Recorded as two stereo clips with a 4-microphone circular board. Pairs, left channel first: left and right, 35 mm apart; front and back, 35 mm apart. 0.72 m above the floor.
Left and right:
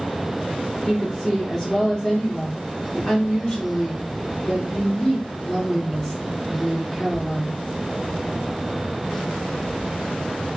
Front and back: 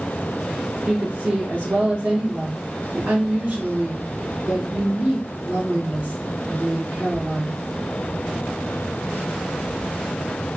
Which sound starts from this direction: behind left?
A woman speaking, at 0.9 s.